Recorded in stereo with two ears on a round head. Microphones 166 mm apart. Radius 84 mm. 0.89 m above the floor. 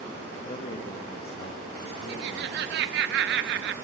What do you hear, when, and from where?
0.5 s a man speaking: 35° left (ahead or behind), 1.3 m
2.1 s laughter: 60° right (ahead or behind), 1.0 m